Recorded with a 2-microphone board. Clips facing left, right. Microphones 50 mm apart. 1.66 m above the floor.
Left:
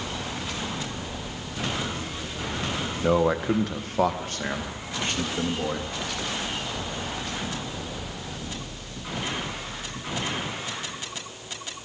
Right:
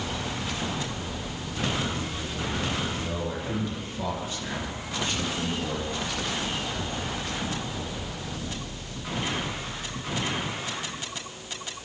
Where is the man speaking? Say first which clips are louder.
Left 9 dB; 80° left, 1.9 m; by 5.9 s 35° left (ahead or behind), 4 m.